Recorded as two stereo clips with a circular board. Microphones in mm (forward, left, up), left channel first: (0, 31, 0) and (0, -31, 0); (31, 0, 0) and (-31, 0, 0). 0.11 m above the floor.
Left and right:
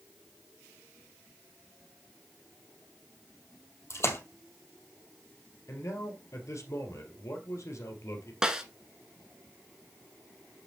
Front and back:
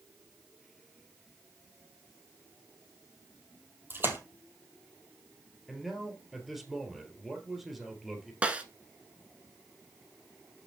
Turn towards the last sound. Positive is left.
turn(degrees=-150)